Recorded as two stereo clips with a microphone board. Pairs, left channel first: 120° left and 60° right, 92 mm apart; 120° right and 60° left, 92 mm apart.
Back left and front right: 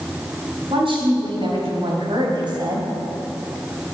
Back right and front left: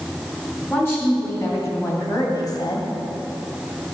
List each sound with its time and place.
0.7 s a woman speaking: 55° right, 4.5 m; by 2.9 s 95° right, 2.5 m